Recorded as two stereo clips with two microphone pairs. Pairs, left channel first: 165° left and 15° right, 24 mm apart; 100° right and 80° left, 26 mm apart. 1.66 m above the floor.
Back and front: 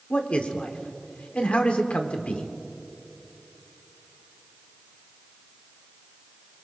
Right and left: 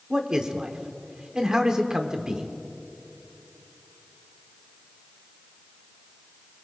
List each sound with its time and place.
0.1 s a man speaking: 145° left, 1.3 m